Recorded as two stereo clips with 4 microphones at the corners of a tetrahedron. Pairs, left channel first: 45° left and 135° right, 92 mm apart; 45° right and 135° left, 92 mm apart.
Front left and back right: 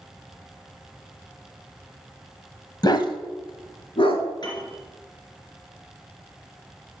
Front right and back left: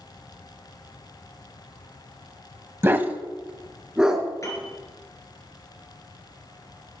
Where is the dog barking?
75° left, 0.8 m; by 4.2 s 50° left, 1.9 m.